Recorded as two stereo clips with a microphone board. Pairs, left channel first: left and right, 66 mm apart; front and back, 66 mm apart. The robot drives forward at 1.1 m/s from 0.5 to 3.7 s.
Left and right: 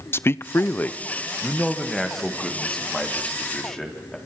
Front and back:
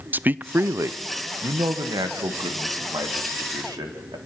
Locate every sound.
0.1 s a man speaking: 130° left, 0.5 m; by 4.2 s 175° left, 4 m